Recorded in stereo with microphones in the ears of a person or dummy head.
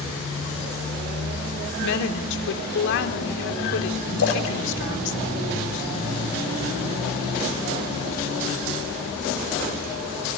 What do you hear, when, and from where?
1.8 s a woman speaking: 65° left (ahead or behind), 3.5 m
4.2 s a splash: 85° left, 6 m